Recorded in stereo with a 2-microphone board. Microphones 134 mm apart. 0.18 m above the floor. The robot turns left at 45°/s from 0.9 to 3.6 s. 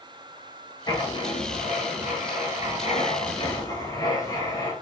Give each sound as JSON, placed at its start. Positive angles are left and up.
{"t": 0.9, "sound": "writing", "azimuth_deg": 150, "distance_m": 1.2}